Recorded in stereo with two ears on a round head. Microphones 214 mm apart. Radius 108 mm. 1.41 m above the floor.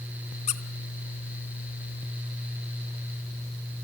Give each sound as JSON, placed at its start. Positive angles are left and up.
{"t": 0.5, "sound": "a squeak", "side_deg": 30, "distance_m": 1.4}